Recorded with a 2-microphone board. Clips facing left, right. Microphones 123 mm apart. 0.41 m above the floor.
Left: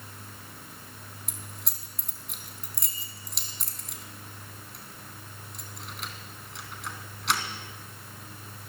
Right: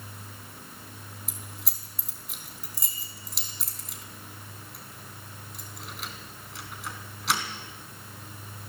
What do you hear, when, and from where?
1.3 s keys jangling: centre (ahead or behind), 3 m